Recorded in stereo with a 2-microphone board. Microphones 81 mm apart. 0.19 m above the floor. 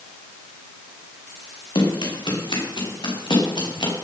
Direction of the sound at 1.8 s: 80° left.